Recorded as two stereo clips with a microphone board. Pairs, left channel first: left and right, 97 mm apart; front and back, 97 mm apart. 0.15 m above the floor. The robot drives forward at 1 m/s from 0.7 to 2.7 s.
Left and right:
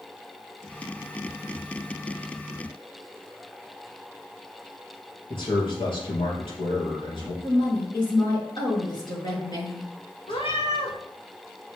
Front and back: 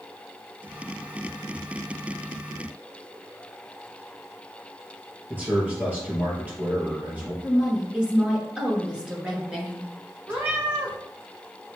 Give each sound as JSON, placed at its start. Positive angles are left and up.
{"t": 5.3, "sound": "a man speaking", "azimuth_deg": 105, "distance_m": 3.0}
{"t": 7.4, "sound": "a woman speaking", "azimuth_deg": 100, "distance_m": 2.5}
{"t": 10.3, "sound": "a cat meowing", "azimuth_deg": 110, "distance_m": 2.0}